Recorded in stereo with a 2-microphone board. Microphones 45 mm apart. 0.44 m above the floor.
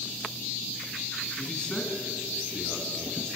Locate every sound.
1.4 s a man speaking: 15° left (ahead or behind), 4 m